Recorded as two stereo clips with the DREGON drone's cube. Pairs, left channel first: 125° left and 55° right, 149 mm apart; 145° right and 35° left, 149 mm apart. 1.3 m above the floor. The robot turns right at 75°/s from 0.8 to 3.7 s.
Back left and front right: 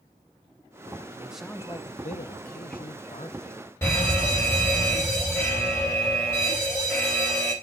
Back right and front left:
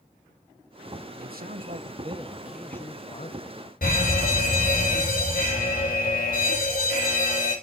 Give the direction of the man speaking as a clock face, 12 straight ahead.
11 o'clock.